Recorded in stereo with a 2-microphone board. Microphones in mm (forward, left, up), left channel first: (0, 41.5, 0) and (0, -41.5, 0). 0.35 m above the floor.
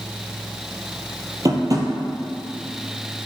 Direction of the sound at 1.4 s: 45° right (ahead or behind).